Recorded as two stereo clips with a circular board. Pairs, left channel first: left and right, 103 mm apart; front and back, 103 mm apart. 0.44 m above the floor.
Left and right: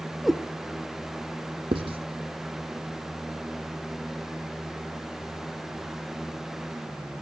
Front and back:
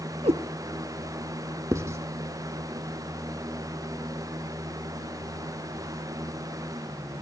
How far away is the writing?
About 0.9 m.